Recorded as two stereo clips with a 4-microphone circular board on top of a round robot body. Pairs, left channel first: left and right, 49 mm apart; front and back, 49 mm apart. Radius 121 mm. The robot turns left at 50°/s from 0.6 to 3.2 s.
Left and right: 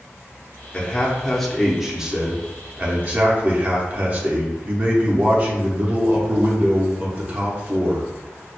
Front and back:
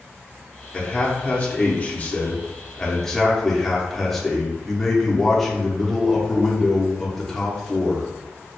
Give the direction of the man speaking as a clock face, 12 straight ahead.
11 o'clock.